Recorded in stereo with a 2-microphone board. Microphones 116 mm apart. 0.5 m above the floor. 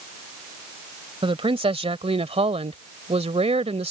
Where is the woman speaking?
55° right (ahead or behind); by 3.9 s 65° right (ahead or behind).